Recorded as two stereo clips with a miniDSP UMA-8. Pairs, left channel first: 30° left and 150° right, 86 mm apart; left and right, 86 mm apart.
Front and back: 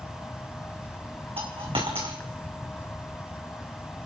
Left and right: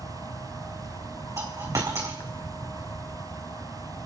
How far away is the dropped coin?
About 2.5 m.